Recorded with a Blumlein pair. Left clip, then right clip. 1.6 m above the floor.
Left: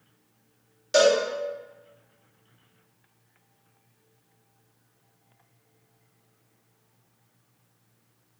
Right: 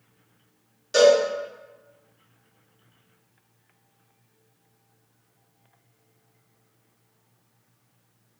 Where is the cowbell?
15° left, 1.0 m.